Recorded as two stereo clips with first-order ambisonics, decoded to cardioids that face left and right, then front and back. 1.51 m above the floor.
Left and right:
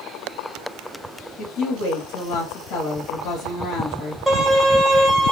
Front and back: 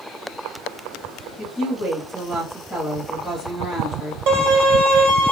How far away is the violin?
About 1.8 m.